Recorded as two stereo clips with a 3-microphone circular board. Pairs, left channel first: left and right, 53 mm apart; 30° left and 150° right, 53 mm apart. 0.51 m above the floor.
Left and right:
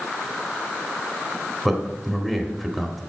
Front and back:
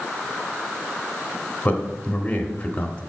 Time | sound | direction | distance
1.6 | a man speaking | 5° left | 1.1 m